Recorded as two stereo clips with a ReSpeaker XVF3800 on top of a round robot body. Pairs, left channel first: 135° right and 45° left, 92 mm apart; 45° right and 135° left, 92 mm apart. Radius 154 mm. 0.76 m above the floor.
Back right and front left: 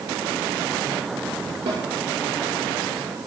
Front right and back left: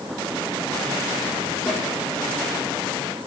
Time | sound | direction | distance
1.7 | a snare drum | 35° left | 8 m